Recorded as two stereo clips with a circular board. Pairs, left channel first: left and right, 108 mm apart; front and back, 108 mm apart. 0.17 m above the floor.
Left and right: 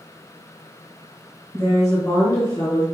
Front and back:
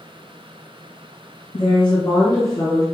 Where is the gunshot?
I don't hear a gunshot.